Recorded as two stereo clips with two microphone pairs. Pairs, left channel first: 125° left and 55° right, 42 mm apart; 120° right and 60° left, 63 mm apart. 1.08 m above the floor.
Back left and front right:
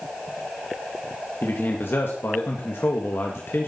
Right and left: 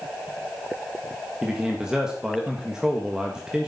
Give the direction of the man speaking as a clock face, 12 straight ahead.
7 o'clock.